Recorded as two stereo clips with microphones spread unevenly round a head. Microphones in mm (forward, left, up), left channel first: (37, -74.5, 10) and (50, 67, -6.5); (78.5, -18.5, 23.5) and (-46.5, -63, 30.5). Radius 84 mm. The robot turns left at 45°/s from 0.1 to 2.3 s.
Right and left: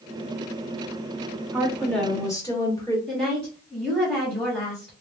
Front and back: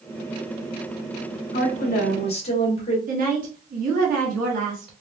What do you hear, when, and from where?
1.5 s a woman speaking: 10° left, 1.4 m; by 3.0 s 25° right, 1.4 m
3.1 s a woman speaking: 175° left, 1.5 m